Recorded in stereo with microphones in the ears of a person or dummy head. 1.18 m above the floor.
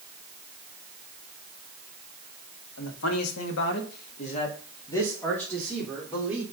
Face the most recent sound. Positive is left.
turn(degrees=-5)  # may be behind; listen again after turning